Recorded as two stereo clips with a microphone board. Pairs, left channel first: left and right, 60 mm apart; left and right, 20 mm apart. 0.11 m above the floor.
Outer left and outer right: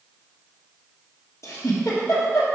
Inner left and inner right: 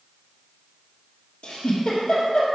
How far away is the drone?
I don't hear a drone.